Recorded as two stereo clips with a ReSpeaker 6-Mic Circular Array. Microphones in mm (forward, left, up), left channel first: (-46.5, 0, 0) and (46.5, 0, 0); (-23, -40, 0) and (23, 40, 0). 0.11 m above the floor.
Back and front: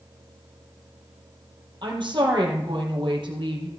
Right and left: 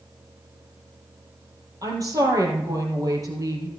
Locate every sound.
1.8 s a woman speaking: 20° left, 3.5 m